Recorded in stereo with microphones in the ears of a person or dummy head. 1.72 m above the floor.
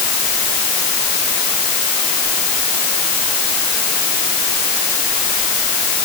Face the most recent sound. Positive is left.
No sound to turn to.